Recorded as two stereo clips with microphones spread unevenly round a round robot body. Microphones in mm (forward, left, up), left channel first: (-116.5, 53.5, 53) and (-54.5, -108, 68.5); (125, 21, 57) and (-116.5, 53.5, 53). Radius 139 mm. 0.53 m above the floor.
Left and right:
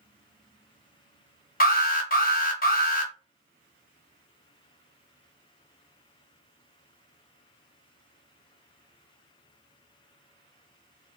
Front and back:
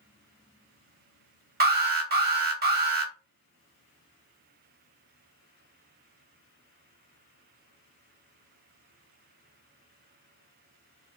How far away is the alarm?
About 1.0 m.